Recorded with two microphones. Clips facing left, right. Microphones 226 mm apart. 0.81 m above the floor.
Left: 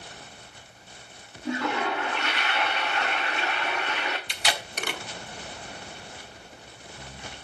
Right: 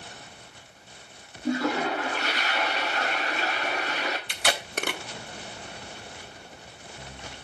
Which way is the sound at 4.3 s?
55° right (ahead or behind).